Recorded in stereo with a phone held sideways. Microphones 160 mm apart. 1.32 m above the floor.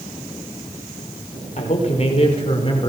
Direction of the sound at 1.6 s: 45° left (ahead or behind).